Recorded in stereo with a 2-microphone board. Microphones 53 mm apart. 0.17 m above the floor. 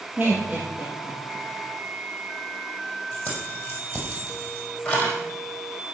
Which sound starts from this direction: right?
Laughter, at 0.2 s.